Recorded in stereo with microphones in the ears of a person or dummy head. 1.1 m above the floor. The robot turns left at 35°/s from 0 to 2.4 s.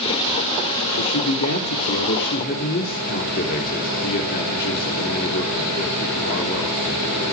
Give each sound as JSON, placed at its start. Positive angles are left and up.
{"t": 1.0, "sound": "a man speaking", "azimuth_deg": 95, "distance_m": 3.0}